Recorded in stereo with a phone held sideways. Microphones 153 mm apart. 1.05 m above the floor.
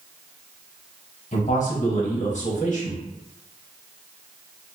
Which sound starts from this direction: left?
A man speaking, at 1.3 s.